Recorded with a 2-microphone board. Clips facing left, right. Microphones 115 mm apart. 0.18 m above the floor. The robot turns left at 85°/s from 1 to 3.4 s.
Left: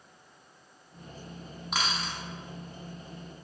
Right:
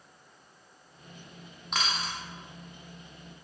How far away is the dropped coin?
About 0.7 m.